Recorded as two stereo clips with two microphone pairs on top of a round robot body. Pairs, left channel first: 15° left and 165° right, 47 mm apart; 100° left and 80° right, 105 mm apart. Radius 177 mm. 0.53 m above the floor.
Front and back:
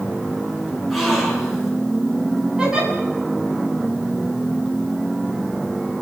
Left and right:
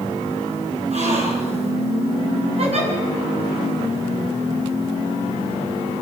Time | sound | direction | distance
0.9 | a gasp | 75° right | 6.5 m
2.6 | a giggle | 90° right | 7 m